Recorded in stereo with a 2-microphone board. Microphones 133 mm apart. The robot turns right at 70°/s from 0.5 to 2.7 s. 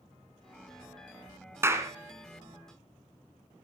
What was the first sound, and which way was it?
A clap, 20° right (ahead or behind).